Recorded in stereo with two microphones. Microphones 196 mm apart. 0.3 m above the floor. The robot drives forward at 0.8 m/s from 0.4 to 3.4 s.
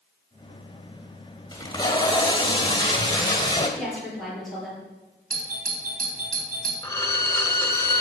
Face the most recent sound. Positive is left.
turn(degrees=15)  # may be behind; listen again after turning